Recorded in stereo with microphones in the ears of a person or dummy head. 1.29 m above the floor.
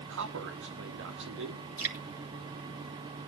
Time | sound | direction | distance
0.1 | a man speaking | 70° right (ahead or behind) | 2.5 m
1.8 | dripping | 10° right (ahead or behind) | 2.5 m